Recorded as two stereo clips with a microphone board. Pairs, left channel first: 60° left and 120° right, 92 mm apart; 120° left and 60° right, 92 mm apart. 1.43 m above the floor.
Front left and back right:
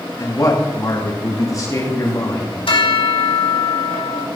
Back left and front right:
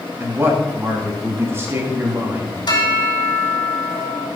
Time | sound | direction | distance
0.2 | a man speaking | 5° left | 3 m
2.7 | a bell | 80° left | 2.5 m